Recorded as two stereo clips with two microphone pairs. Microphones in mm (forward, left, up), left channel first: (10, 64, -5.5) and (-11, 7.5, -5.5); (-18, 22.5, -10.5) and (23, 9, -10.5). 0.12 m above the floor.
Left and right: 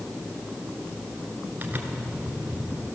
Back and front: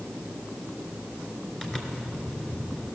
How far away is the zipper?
About 1.3 m.